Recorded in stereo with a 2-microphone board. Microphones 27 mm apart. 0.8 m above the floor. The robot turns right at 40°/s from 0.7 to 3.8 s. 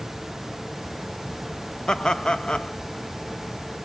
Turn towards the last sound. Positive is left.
turn(degrees=135)